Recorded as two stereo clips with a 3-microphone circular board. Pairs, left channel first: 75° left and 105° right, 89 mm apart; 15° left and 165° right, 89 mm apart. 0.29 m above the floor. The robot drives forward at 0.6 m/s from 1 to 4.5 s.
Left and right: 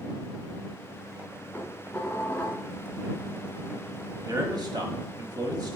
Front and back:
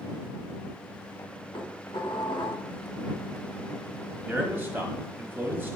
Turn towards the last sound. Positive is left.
turn(degrees=-105)